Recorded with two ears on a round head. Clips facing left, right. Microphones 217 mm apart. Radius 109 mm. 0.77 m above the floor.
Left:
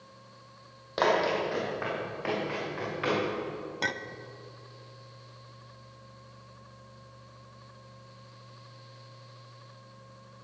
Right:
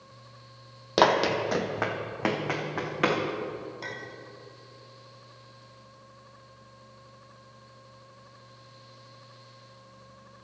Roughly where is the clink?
Left.